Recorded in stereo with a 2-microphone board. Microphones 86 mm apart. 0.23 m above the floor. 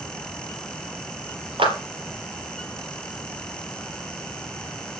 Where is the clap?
75° right (ahead or behind), 4 m.